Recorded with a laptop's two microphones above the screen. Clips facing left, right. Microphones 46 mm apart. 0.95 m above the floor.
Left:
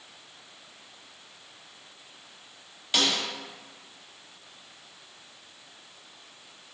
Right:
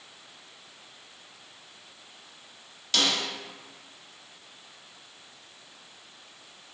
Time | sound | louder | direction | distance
2.9 | a snare drum | even | 15° left (ahead or behind) | 0.7 m